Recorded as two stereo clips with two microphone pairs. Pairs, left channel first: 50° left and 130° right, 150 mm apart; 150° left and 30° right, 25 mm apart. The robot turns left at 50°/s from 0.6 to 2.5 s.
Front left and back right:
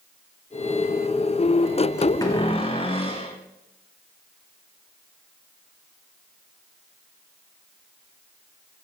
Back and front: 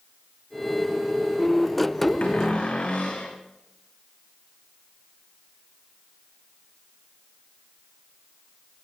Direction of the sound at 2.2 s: 120° left.